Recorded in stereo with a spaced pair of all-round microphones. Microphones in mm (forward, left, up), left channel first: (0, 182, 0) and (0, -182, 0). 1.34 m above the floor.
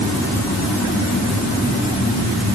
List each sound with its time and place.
Only background noise.